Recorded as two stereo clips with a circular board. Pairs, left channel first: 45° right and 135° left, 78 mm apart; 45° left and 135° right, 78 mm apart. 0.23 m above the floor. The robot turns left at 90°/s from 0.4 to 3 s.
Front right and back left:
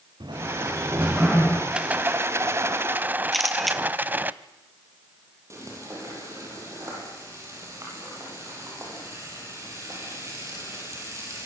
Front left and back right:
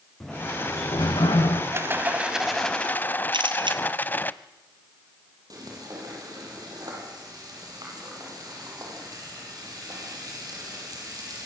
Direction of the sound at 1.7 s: 155° right.